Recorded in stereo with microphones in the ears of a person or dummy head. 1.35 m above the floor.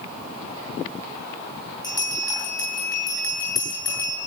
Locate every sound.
1.8 s a bell: 20° left (ahead or behind), 7 m